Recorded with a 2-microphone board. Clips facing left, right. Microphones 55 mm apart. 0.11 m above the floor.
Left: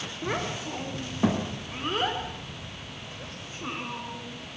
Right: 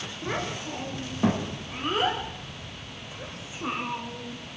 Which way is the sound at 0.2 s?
15° left (ahead or behind).